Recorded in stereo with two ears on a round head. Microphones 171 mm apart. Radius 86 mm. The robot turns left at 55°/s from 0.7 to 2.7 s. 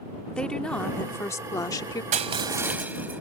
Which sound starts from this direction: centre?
A woman speaking, at 0.3 s.